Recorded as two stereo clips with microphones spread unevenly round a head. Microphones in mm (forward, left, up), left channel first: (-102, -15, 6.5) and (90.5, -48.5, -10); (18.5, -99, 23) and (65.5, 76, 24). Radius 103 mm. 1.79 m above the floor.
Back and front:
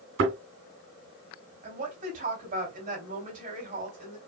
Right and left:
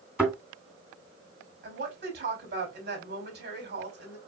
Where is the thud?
10° right, 3 m.